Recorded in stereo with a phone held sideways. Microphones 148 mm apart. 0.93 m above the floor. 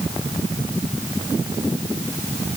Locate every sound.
Only background noise.